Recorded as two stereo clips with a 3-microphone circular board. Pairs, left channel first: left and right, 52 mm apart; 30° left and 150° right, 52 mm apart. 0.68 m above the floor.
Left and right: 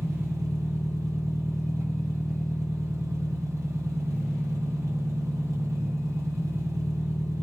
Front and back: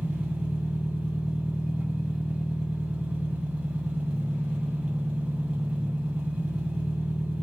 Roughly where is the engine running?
Right.